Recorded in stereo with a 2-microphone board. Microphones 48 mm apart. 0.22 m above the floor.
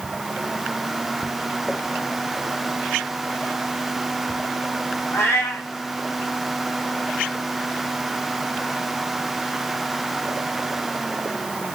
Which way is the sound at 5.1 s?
80° left.